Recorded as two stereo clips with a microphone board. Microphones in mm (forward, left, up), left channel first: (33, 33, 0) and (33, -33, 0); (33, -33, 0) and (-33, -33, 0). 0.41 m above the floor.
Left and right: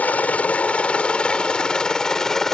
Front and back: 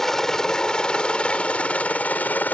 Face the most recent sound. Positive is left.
turn(degrees=15)